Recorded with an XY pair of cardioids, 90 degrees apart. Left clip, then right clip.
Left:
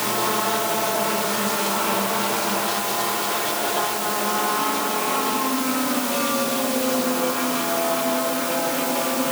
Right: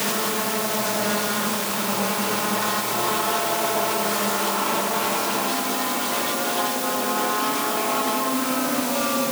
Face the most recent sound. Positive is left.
No sound to turn to.